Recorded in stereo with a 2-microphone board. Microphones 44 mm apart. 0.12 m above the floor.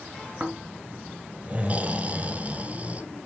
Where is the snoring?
35° right (ahead or behind), 1.1 m.